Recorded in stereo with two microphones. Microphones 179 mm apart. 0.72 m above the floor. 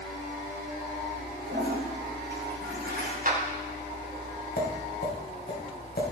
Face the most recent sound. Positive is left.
turn(degrees=60)  # may be behind; listen again after turning